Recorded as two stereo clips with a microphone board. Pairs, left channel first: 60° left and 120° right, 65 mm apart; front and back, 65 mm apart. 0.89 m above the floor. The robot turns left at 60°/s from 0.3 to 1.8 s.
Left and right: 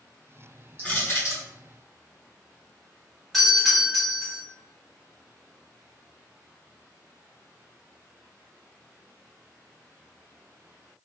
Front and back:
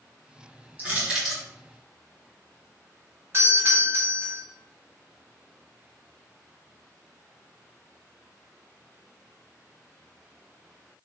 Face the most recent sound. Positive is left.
turn(degrees=150)